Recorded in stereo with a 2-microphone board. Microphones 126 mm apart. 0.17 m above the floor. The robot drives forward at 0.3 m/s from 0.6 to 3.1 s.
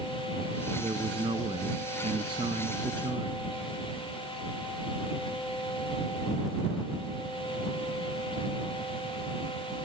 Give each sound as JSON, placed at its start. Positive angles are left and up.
{"t": 0.8, "sound": "a man speaking", "side_deg": -45}